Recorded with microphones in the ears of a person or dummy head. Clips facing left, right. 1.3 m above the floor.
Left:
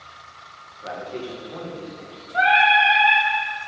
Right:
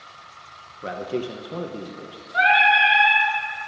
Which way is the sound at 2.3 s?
30° right (ahead or behind).